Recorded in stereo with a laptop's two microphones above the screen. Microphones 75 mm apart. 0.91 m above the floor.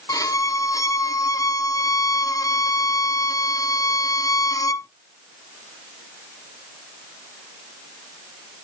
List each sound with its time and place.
0.1 s a violin: 50° left (ahead or behind), 0.5 m